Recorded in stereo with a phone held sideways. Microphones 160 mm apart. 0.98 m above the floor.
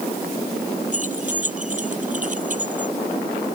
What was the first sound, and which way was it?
Keys jangling, 50° right (ahead or behind).